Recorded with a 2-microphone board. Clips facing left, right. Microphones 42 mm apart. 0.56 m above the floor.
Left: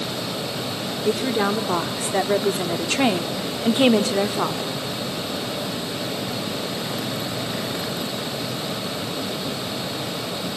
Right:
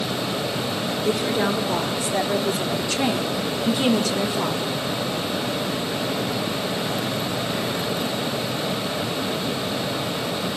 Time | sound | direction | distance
1.1 | a woman speaking | 25° left (ahead or behind) | 1.4 m